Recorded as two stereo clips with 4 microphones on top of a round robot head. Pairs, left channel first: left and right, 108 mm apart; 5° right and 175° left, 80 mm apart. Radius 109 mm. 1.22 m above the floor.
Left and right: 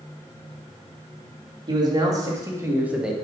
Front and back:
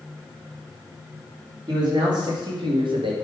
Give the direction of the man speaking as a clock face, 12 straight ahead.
5 o'clock.